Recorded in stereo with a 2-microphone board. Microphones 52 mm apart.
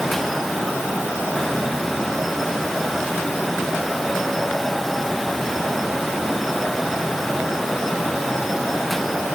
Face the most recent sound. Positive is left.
No sound to turn to.